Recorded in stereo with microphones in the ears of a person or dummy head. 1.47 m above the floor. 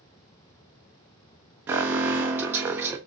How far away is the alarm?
About 0.5 m.